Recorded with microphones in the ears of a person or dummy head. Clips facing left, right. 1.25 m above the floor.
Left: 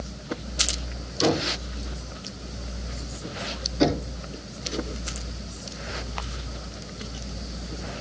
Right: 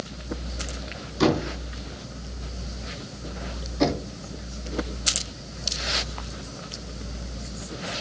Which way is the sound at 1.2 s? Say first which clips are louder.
Right 2 dB; 80° right.